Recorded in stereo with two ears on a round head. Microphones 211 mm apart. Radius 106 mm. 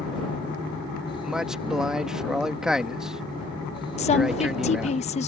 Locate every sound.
1.2 s a man speaking: 5° right (ahead or behind)
4.0 s a woman speaking: 30° left (ahead or behind)